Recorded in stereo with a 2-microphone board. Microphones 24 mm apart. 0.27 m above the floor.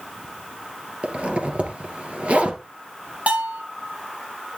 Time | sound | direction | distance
1.0 | a zipper | 55° right (ahead or behind) | 2.5 m
3.3 | a bell | 55° right (ahead or behind) | 6 m